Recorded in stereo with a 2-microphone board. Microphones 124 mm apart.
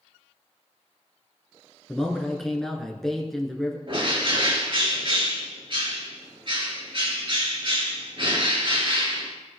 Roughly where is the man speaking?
Centre.